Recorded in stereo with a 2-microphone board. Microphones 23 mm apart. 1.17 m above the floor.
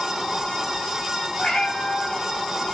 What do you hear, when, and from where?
1.4 s a cat meowing: 65° left (ahead or behind), 2.5 m